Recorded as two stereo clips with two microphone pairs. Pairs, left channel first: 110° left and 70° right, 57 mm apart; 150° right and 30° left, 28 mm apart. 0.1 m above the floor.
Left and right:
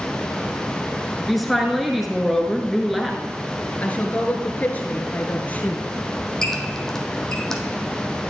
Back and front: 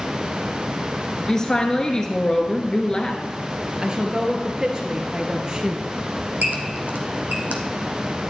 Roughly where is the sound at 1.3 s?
Behind.